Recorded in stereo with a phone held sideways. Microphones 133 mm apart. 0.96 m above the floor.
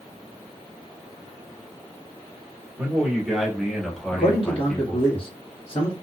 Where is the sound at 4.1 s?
40° left (ahead or behind), 1.3 m.